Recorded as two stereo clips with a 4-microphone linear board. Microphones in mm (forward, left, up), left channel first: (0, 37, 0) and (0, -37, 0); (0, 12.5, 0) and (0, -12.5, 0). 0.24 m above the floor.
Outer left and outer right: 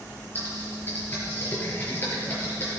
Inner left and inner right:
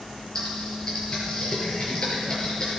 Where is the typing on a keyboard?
25° left (ahead or behind), 5.5 m.